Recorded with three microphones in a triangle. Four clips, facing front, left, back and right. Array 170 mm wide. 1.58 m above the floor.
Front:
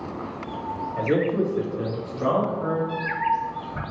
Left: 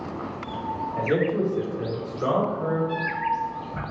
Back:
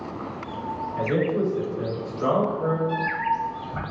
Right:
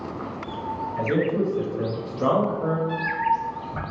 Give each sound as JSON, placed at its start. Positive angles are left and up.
{"t": 1.0, "sound": "a man speaking", "azimuth_deg": 20, "distance_m": 1.2}
{"t": 2.9, "sound": "a cat meowing", "azimuth_deg": -135, "distance_m": 2.0}